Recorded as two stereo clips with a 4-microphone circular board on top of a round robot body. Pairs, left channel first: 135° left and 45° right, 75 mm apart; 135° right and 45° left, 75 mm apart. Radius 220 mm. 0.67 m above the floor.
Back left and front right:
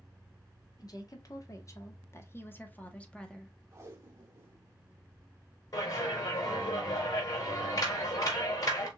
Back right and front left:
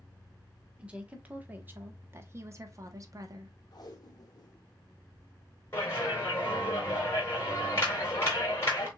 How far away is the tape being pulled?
About 0.6 m.